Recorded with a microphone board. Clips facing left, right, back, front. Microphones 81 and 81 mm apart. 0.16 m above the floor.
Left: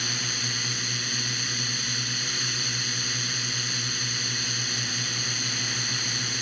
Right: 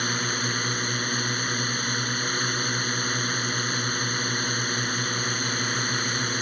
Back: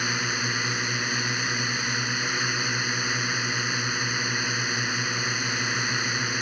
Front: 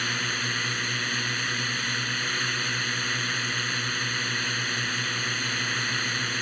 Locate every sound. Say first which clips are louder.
0.0 s a drone: right 6 dB, back 2 dB; 110° right